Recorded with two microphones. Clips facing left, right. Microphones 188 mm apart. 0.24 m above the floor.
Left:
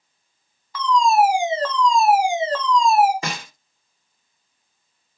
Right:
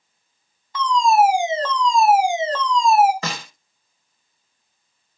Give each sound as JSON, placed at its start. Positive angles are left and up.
{"t": 0.7, "sound": "a fire alarm", "side_deg": -25, "distance_m": 3.0}
{"t": 3.2, "sound": "a snare drum", "side_deg": 10, "distance_m": 3.0}